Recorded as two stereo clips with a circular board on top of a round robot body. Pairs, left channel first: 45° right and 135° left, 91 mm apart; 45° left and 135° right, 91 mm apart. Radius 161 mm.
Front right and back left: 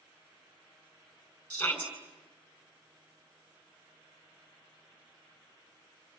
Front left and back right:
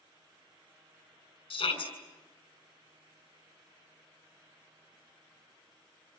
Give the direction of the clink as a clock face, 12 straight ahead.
No clink in this recording.